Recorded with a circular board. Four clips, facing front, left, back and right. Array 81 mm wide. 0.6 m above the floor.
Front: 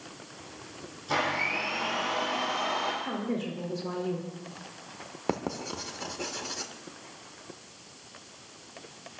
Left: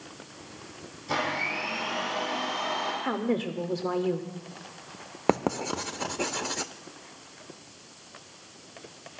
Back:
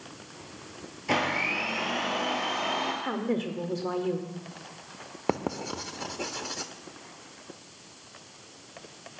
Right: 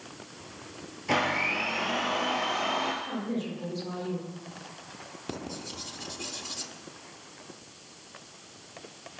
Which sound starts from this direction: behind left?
A woman speaking, at 3.0 s.